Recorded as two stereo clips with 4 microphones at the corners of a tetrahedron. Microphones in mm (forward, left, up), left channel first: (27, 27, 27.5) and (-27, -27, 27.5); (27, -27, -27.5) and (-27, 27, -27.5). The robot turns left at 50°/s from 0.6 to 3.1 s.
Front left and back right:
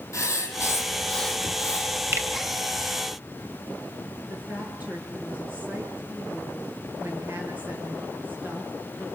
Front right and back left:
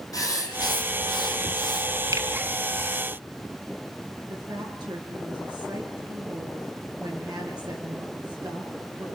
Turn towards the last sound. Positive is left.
turn(degrees=155)